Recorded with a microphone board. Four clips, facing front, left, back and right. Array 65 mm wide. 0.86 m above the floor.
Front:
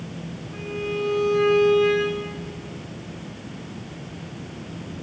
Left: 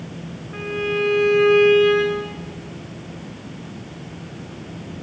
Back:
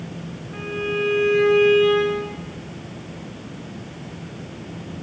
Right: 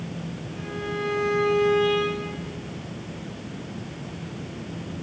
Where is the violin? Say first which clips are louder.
Left 8 dB, back 3 dB; 110° left, 2.5 m.